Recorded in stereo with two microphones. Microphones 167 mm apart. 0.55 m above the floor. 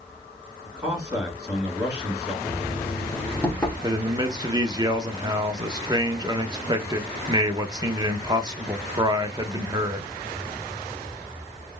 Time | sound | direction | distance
0.7 | a man speaking | 20° right (ahead or behind) | 3 m
2.4 | knocking | 10° left (ahead or behind) | 1.2 m
3.8 | a man speaking | 25° right (ahead or behind) | 0.6 m